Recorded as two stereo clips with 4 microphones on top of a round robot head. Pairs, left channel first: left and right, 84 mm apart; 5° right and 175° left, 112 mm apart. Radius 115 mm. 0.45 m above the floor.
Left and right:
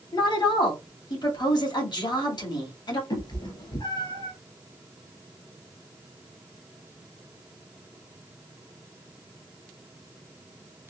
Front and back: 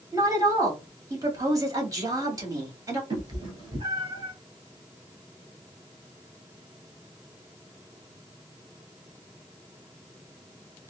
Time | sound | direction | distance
0.1 | a woman speaking | 120° left | 2.5 m
3.1 | a cat meowing | 125° left | 1.9 m